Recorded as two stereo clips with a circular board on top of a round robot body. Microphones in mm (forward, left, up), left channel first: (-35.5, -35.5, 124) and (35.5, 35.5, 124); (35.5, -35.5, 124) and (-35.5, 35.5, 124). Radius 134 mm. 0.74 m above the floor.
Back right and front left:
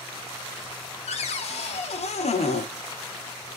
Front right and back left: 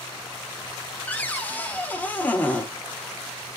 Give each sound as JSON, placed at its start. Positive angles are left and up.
{"t": 1.1, "sound": "a cupboard door", "azimuth_deg": -120, "distance_m": 1.0}